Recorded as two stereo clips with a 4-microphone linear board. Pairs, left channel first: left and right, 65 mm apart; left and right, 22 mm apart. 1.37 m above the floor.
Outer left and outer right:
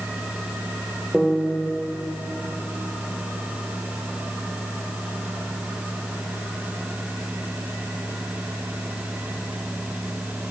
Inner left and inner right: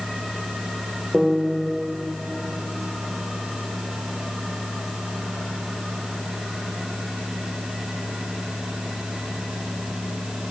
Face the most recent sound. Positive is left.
turn(degrees=-5)  # may be behind; listen again after turning